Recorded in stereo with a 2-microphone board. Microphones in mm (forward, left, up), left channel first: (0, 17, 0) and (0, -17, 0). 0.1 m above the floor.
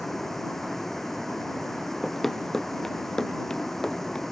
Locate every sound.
0.0 s a vehicle: 10° left (ahead or behind)
2.0 s running footsteps: centre (ahead or behind); by 4.2 s 20° left (ahead or behind)